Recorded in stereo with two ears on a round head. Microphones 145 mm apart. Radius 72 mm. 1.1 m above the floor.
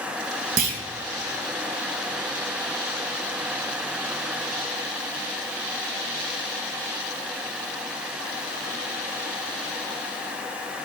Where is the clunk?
50° right (ahead or behind), 1.5 m.